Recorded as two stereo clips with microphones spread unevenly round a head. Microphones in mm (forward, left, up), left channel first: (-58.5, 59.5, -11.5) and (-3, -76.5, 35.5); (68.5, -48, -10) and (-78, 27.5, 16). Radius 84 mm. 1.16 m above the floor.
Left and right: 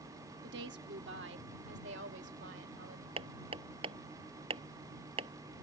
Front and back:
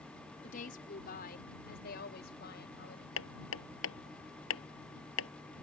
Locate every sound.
0.4 s a woman speaking: 70° right; by 3.1 s 60° right
3.2 s hammering: 10° right